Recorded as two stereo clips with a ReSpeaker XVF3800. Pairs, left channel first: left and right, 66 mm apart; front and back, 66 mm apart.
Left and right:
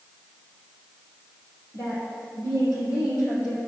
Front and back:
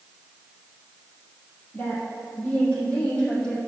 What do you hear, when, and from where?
1.7 s a woman speaking: 60° left, 3.5 m; by 3.6 s 75° left, 5.5 m